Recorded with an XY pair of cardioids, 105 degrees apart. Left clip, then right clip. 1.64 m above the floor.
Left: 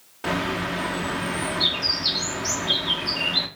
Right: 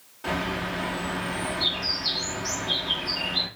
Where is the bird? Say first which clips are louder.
Left 3 dB; 50° left, 0.8 m.